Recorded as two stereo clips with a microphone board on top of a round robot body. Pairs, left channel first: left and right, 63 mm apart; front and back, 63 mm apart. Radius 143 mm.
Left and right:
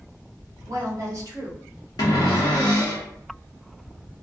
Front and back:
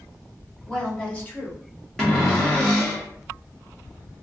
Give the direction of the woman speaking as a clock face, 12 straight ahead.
2 o'clock.